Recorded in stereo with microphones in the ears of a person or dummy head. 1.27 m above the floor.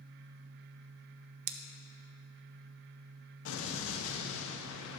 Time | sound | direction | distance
1.5 | scissors | 65° right (ahead or behind) | 0.6 m
3.5 | an explosion | 80° left | 0.8 m